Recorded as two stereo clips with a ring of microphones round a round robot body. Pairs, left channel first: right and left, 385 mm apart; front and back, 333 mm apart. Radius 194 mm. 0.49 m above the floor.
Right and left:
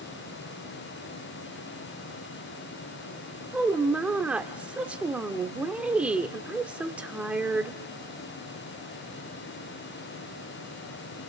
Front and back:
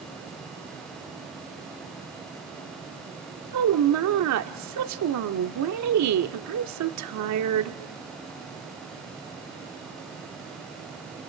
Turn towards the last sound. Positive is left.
turn(degrees=175)